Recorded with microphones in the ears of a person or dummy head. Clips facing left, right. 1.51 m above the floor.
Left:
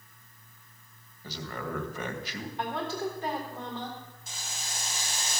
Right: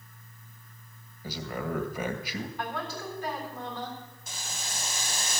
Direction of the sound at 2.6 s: 25° left (ahead or behind).